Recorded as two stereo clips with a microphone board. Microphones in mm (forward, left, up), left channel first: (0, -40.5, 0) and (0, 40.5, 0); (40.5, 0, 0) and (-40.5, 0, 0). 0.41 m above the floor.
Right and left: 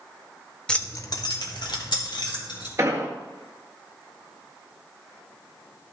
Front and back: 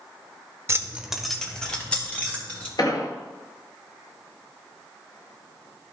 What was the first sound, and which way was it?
Keys jangling, 165° right.